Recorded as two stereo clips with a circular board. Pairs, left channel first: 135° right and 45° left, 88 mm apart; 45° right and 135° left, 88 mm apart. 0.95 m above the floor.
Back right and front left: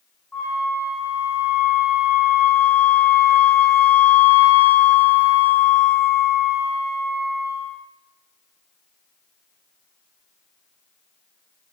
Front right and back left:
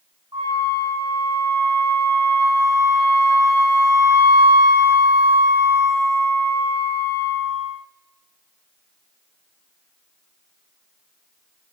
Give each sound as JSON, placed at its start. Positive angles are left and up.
{"t": 0.3, "sound": "a flute", "azimuth_deg": 150, "distance_m": 2.5}